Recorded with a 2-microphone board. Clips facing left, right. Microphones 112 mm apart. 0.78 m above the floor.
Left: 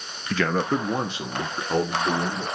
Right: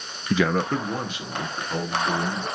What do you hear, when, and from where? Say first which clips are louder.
0.3 s a man speaking: right 1 dB; 20° right (ahead or behind), 0.5 m; by 2.5 s 40° left (ahead or behind), 2.5 m